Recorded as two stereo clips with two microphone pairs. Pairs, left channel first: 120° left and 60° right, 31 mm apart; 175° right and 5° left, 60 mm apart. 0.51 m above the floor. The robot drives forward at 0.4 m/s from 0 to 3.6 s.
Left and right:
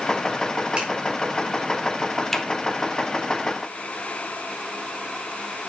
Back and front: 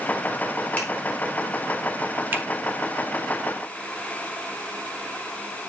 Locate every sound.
0.8 s a finger snap: 110° right, 4 m
2.3 s a finger snap: 40° left, 1.3 m